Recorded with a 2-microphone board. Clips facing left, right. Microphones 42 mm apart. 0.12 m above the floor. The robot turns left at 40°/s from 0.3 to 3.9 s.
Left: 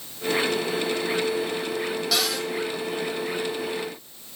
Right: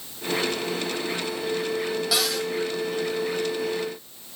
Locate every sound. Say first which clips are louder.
2.1 s a cupboard door: even; 5° right (ahead or behind), 1.5 m; by 2.5 s 10° left (ahead or behind), 1.5 m